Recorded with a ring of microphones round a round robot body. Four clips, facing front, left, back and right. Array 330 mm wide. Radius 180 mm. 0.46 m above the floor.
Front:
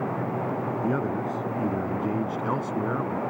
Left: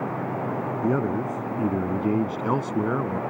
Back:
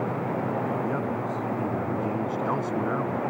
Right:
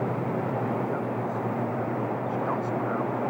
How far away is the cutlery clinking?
No cutlery clinking in this recording.